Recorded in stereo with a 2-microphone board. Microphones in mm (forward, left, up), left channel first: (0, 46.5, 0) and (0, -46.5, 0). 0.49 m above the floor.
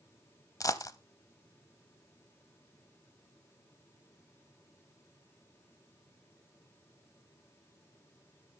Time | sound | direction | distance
0.6 | a dropped coin | 35° left (ahead or behind) | 0.7 m